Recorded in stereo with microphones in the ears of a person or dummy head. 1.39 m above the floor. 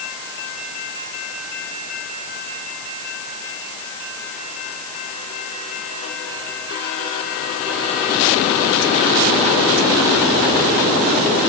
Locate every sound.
Only background noise.